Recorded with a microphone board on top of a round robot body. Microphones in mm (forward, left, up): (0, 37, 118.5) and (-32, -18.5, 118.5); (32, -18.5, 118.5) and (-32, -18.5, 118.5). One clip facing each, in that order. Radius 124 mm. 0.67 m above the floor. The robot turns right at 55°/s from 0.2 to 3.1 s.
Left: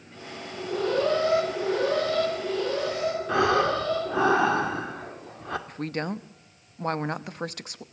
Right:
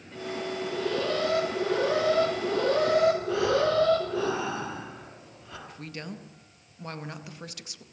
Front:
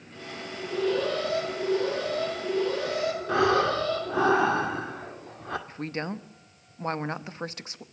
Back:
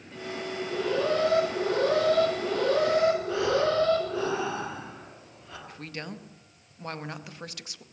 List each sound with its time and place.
0.5 s an alarm: 80° left, 6.5 m; by 4.3 s 140° right, 6.5 m
3.3 s breathing: 30° left, 2 m
5.7 s a woman speaking: 45° left, 1.2 m